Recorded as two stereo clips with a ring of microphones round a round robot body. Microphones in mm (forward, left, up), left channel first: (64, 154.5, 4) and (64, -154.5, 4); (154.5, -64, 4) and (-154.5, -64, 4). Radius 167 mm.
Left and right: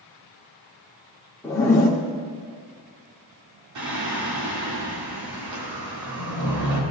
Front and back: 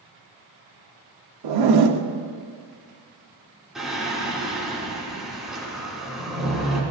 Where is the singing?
90° right, 3.5 m.